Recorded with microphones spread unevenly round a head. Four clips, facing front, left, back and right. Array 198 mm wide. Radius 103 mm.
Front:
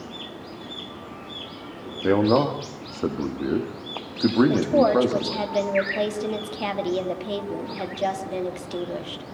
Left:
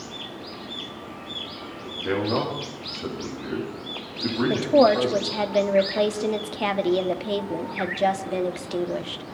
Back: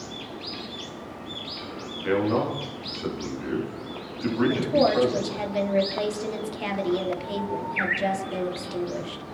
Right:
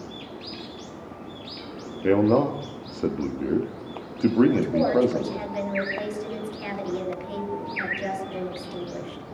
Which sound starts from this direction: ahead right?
A man speaking, at 2.0 s.